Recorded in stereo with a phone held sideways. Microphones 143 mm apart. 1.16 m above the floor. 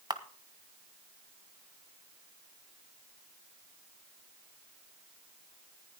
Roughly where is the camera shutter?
Right.